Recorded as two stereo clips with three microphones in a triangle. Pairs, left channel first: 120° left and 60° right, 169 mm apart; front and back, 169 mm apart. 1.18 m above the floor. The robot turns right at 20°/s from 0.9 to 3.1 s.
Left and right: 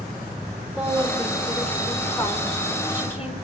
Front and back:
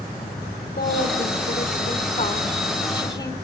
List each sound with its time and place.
0.8 s a woman speaking: 25° left, 4 m; by 3.4 s 70° left, 4 m